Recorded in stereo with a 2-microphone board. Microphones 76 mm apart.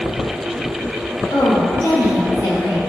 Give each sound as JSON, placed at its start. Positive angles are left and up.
{"t": 1.3, "sound": "a woman speaking", "side_deg": 80, "distance_m": 2.0}